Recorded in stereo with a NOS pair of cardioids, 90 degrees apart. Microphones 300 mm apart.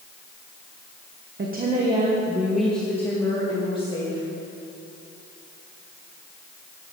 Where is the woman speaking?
35° right, 1.3 m; by 4.2 s 20° left, 3 m.